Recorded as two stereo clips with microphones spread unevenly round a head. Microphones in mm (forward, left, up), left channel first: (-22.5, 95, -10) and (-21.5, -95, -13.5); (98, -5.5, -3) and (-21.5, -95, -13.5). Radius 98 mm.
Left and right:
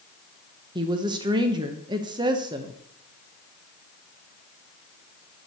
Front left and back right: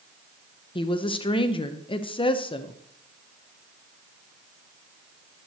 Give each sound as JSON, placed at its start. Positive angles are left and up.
{"t": 0.8, "sound": "a woman speaking", "azimuth_deg": -20, "distance_m": 1.0}